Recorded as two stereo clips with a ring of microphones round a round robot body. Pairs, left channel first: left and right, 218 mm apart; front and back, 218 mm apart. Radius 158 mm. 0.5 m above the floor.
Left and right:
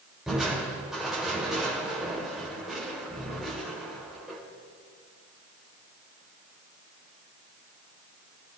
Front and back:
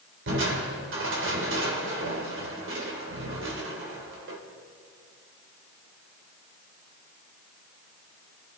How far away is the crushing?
About 2.5 m.